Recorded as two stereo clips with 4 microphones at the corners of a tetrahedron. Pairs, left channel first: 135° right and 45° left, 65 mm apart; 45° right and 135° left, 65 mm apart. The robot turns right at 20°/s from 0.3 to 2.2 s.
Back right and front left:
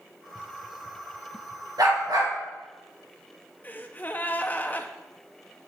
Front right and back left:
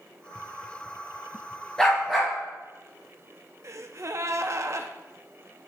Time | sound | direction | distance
1.8 | a dog barking | 35° left | 3.5 m
3.6 | a gasp | 165° left | 0.6 m